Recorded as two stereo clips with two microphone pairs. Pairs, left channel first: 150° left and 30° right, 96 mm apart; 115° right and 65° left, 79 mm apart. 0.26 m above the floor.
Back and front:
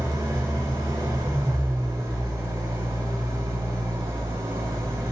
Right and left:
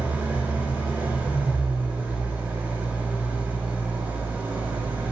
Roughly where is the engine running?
Ahead.